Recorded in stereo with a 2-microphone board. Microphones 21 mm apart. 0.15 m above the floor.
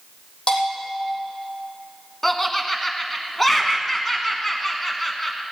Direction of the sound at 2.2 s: 10° left (ahead or behind).